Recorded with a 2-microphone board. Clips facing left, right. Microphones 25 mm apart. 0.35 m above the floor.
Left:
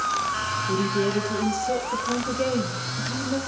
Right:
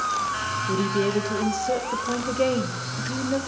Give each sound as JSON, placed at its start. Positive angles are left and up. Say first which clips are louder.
{"t": 0.7, "sound": "a woman speaking", "louder": "right 1 dB", "side_deg": -20, "distance_m": 1.1}